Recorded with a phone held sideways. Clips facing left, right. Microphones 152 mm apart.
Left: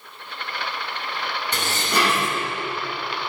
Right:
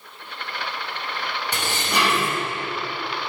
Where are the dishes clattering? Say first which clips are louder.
Left 1 dB; 10° right (ahead or behind), 3.5 m.